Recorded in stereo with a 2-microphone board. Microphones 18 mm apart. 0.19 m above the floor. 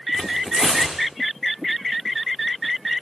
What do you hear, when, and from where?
0.1 s tearing paper: 65° right (ahead or behind), 8 m